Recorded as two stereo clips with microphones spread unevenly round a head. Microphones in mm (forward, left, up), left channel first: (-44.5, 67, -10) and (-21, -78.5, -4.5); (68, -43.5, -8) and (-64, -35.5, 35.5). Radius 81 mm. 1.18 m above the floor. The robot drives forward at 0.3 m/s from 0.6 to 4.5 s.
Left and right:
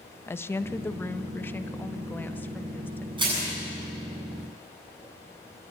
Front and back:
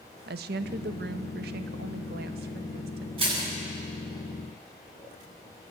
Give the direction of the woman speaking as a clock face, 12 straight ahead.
6 o'clock.